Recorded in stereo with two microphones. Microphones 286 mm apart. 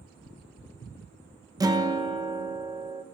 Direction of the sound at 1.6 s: 15° right (ahead or behind).